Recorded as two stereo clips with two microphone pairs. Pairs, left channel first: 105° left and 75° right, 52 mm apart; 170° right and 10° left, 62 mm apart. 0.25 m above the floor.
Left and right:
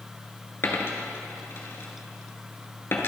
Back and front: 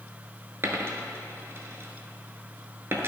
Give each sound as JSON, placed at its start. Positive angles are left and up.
{"t": 0.6, "sound": "a dropped coin", "azimuth_deg": 60, "distance_m": 0.9}